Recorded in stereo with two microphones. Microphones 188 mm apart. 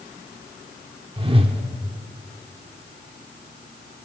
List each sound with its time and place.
1.2 s a whoosh: 30° right (ahead or behind), 0.7 m